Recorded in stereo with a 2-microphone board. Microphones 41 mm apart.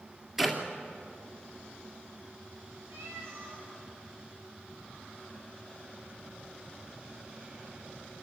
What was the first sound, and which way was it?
A clap, 10° right (ahead or behind).